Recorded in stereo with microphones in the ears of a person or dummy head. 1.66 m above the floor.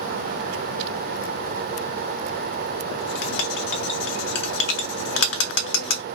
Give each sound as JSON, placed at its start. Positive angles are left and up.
{"t": 2.9, "sound": "writing", "side_deg": 75, "distance_m": 0.8}